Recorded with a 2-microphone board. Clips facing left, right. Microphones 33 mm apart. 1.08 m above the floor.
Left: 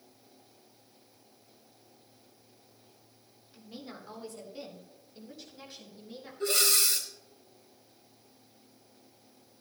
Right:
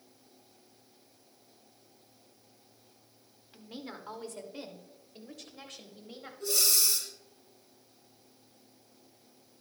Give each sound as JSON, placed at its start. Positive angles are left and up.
{"t": 3.5, "sound": "a woman speaking", "side_deg": -55, "distance_m": 2.5}
{"t": 6.4, "sound": "breathing", "side_deg": 45, "distance_m": 2.5}